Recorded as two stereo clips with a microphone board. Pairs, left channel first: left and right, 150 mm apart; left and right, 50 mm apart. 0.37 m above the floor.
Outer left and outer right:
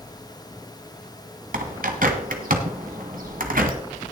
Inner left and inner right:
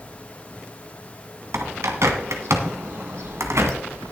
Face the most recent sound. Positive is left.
turn(degrees=-70)  # may be behind; listen again after turning